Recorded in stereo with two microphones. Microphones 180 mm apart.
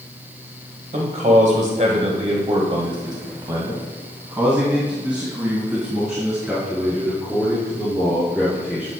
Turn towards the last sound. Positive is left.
turn(degrees=5)  # may be behind; listen again after turning